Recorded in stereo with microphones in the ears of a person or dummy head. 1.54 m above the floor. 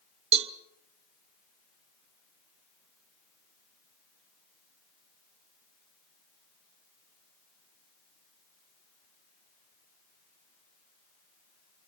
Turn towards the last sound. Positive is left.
turn(degrees=-40)  # may be behind; listen again after turning